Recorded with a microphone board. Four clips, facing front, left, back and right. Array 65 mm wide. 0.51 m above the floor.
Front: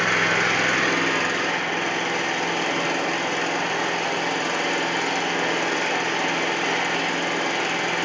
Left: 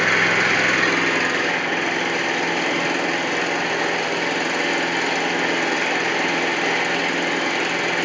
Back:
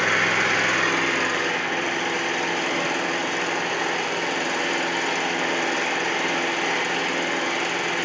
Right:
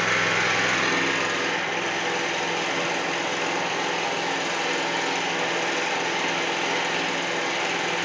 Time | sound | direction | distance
0.0 | an engine running | 90° left | 6 m